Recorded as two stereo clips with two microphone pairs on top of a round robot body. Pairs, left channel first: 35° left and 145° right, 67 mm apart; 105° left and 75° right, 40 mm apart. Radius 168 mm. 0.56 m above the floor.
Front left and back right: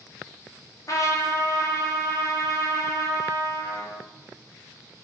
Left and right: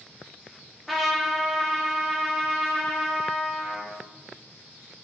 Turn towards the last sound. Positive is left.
turn(degrees=20)